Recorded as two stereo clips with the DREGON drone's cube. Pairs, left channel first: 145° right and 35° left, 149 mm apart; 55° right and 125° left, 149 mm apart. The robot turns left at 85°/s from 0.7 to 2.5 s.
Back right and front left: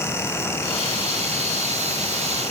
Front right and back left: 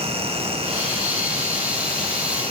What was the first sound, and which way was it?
Only background noise.